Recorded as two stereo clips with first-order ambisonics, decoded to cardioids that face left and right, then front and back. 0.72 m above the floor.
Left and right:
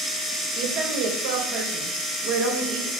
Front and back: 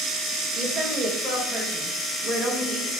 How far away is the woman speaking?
About 3.5 m.